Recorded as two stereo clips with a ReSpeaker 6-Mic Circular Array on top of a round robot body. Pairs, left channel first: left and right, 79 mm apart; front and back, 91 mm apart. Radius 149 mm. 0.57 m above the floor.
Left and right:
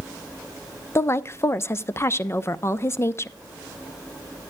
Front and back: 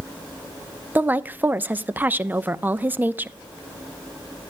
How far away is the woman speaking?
About 0.7 m.